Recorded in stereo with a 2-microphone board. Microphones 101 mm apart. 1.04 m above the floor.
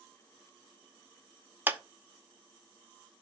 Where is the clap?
20° right (ahead or behind), 0.6 m.